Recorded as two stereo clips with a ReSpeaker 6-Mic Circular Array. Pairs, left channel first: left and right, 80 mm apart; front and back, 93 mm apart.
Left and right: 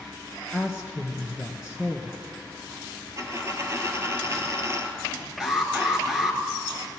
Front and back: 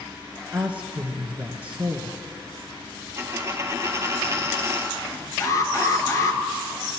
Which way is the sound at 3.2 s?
130° right.